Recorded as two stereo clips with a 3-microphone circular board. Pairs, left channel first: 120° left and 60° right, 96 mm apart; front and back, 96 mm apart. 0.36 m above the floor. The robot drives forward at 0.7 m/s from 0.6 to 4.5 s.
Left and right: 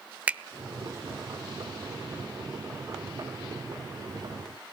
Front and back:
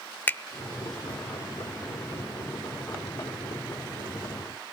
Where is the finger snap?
15° right, 0.6 m.